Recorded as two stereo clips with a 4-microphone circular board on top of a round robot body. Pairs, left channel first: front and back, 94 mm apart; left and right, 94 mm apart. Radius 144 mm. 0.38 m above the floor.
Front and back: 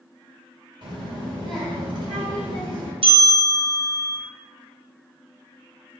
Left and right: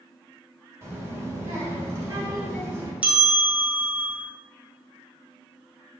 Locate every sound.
0.8 s a child speaking: 150° right, 2.0 m
3.0 s a bell: 165° right, 1.2 m